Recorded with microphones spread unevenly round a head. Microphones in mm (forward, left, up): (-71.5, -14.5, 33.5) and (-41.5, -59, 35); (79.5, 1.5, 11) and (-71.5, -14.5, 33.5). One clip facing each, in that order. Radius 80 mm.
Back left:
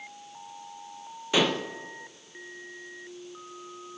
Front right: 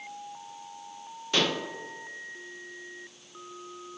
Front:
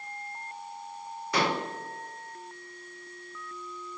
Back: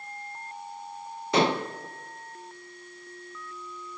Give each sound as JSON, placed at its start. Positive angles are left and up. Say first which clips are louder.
{"t": 1.3, "sound": "dishes clattering", "louder": "back left 3 dB, back 5 dB", "azimuth_deg": -170, "distance_m": 0.7}